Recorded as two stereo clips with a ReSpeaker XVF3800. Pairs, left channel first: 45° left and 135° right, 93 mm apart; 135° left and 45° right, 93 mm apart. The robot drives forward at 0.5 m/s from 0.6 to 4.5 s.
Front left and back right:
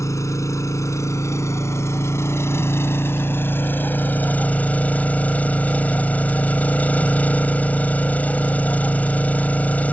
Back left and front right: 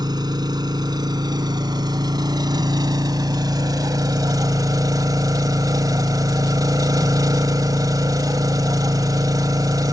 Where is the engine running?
10° right; by 9.9 s 20° right.